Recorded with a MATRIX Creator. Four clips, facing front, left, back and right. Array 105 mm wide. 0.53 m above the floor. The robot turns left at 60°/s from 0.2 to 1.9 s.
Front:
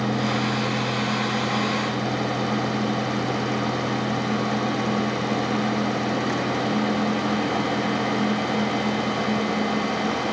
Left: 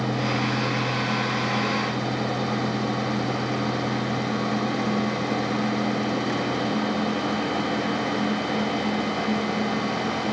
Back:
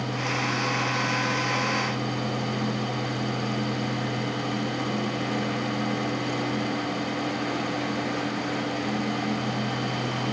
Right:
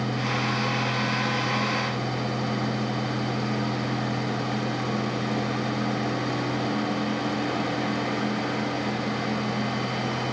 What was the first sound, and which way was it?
Only background noise.